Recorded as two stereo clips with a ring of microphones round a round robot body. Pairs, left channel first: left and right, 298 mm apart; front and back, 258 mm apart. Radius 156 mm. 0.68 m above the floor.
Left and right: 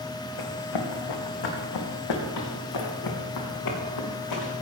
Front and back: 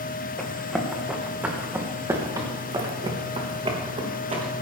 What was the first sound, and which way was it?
Running footsteps, 85° left.